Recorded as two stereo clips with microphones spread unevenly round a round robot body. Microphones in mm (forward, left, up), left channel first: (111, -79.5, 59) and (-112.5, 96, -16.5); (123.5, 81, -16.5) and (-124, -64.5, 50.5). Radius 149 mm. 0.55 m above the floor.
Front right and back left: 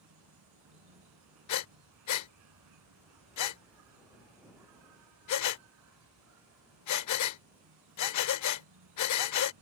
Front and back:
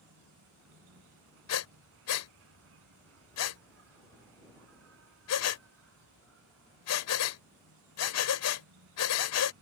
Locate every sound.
0.0 s an insect: 170° left
1.5 s breathing: 5° right